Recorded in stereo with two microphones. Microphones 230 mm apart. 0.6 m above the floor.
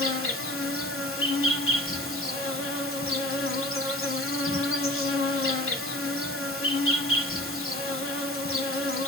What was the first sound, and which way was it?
An insect, 60° left (ahead or behind).